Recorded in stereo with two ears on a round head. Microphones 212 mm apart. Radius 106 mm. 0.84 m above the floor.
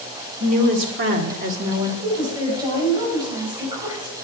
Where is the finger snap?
I don't hear a finger snap.